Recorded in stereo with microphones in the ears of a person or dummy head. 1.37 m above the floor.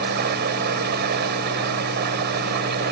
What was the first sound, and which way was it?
Running water, 50° right (ahead or behind).